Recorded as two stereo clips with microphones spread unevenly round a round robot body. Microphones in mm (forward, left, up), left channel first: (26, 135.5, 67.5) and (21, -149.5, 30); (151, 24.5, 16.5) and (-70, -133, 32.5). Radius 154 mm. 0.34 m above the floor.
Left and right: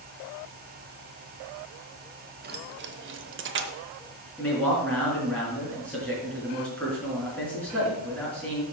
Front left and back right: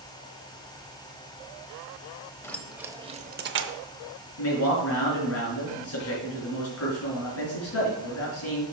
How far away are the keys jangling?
About 1.1 m.